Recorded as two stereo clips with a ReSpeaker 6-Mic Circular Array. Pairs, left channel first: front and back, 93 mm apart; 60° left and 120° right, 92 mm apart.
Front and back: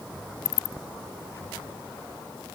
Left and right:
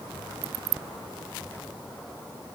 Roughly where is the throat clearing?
I don't hear throat clearing.